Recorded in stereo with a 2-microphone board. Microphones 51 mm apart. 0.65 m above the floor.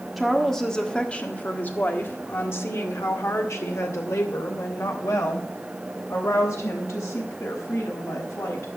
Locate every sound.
0.2 s a woman speaking: centre (ahead or behind), 1.4 m; by 8.7 s 80° left, 5.5 m